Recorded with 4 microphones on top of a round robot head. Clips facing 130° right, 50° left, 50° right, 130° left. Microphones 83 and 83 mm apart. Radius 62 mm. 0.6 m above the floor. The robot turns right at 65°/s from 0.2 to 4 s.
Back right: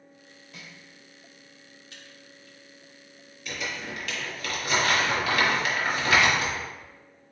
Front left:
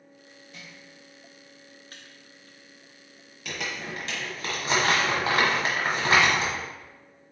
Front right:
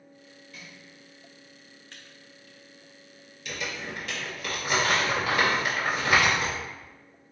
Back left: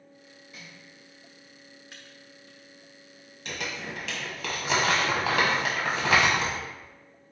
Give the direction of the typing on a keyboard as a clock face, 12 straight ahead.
10 o'clock.